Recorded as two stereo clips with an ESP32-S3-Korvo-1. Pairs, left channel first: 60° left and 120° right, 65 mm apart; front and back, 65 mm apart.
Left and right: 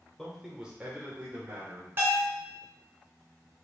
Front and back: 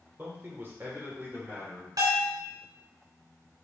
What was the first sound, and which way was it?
A man speaking, 140° left.